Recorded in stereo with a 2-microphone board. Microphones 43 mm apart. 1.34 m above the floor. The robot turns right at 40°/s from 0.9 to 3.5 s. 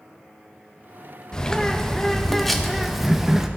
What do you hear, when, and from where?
1.3 s a bird: 15° left (ahead or behind), 0.5 m; by 3.5 s 10° right (ahead or behind), 0.5 m